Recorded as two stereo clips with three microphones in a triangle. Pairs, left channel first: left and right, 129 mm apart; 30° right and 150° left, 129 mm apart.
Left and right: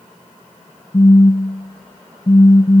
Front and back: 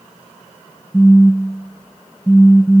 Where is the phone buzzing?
50° left.